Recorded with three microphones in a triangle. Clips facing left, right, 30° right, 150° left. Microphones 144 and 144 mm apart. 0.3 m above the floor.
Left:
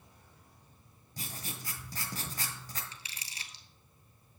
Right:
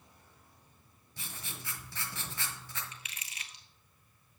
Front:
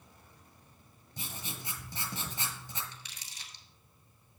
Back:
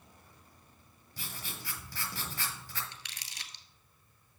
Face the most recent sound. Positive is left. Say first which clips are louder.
# even, back 1 dB
turn(degrees=145)